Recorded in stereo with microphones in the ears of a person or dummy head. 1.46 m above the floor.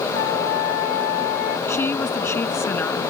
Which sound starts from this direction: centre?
A woman speaking, at 1.7 s.